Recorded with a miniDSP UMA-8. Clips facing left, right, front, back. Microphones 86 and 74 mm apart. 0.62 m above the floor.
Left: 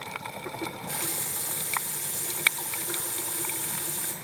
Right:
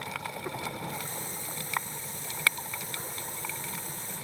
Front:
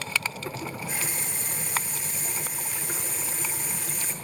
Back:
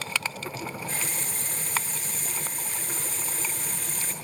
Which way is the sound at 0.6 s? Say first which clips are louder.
Left 2 dB, back 1 dB; 80° left.